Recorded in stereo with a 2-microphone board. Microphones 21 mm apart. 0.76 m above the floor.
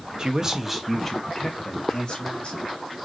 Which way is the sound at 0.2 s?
35° right (ahead or behind).